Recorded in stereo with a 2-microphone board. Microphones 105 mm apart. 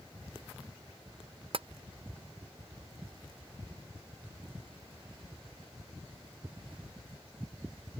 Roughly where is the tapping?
Right.